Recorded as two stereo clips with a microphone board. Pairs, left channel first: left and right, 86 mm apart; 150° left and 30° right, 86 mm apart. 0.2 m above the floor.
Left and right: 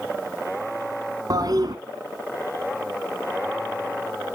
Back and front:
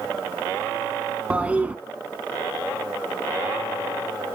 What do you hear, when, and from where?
1.3 s a toilet flushing: 100° right, 1.6 m